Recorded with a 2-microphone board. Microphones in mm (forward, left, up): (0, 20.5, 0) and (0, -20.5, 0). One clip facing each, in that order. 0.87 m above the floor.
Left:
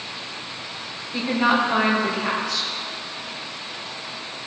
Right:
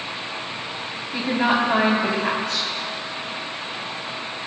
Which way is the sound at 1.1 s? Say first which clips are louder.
Left 1 dB; 45° right (ahead or behind).